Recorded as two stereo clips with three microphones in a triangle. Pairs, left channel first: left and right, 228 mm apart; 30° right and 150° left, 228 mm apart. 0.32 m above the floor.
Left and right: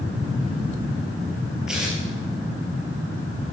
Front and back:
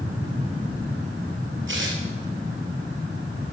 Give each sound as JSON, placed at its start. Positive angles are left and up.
{"t": 1.7, "sound": "tearing paper", "azimuth_deg": 180, "distance_m": 4.0}